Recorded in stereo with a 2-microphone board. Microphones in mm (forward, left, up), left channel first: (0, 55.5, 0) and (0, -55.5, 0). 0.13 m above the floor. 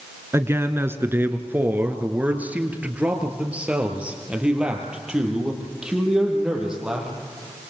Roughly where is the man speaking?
Right.